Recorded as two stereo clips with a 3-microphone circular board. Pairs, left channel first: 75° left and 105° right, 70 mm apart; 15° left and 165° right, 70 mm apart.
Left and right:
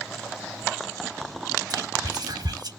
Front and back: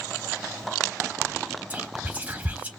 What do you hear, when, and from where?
1.7 s whispering: 95° right, 1.2 m